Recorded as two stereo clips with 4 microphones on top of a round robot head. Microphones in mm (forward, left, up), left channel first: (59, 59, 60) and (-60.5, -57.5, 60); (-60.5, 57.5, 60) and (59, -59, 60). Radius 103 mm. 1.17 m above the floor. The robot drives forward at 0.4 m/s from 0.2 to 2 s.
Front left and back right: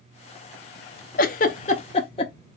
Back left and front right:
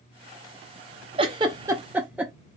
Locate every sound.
1.2 s a giggle: 10° left, 0.7 m; by 2.3 s 30° left, 0.5 m